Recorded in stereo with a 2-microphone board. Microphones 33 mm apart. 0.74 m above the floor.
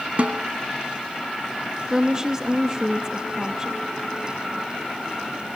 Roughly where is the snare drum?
Right.